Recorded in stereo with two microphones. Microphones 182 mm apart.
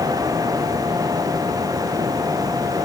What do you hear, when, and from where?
Only background noise.